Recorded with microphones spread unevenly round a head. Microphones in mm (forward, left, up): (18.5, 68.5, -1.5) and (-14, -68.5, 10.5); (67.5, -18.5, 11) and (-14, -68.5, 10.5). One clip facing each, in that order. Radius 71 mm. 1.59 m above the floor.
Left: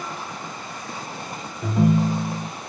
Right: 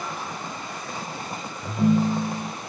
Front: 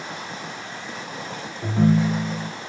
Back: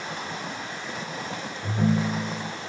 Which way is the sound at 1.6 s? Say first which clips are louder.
Left 1 dB, front 5 dB; 55° left.